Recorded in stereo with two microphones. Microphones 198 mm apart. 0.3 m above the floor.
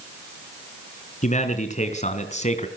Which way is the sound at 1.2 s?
40° left (ahead or behind).